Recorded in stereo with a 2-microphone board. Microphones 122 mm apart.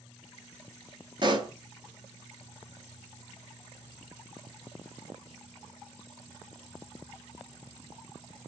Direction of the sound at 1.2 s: 40° right (ahead or behind).